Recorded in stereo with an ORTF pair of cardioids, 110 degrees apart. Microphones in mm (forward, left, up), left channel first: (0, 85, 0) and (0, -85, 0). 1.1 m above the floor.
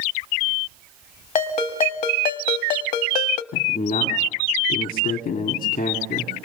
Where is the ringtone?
50° left, 1.5 m.